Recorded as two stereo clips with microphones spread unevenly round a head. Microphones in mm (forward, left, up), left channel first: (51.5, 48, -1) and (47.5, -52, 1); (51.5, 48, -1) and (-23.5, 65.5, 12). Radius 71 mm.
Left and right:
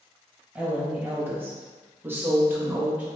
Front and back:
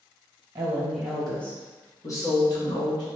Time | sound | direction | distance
0.6 | a woman speaking | 160° right | 0.9 m